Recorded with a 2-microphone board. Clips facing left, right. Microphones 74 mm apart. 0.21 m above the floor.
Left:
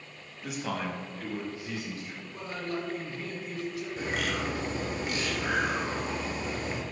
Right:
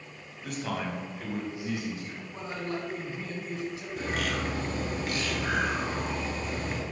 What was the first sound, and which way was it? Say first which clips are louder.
A man speaking: even; 10° left (ahead or behind).